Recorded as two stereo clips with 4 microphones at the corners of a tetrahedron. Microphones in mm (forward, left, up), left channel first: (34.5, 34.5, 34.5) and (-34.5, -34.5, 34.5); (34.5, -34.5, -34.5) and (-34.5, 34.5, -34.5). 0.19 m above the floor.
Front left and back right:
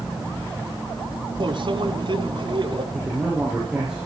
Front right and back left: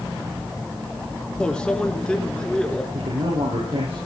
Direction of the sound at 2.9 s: 140° left.